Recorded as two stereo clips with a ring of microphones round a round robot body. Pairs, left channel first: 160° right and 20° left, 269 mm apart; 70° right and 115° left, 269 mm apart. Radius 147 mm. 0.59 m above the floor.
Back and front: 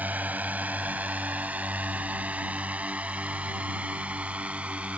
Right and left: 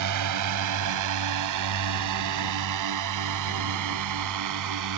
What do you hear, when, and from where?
0.0 s a drone: 105° left; by 5.0 s 110° left